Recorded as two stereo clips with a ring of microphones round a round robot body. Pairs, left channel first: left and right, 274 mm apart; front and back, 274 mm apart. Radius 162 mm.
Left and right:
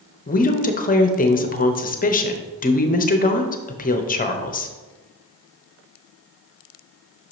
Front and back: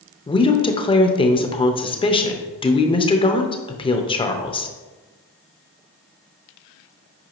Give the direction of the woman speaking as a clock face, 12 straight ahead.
10 o'clock.